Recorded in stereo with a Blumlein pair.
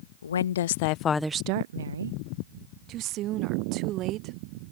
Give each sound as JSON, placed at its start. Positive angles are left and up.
{"t": 0.2, "sound": "a woman speaking", "azimuth_deg": 70}
{"t": 2.9, "sound": "a woman speaking", "azimuth_deg": -35}